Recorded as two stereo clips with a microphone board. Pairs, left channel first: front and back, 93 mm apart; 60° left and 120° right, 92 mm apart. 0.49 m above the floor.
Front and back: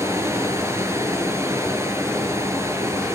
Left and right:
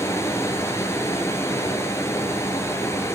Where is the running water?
120° left, 6.5 m.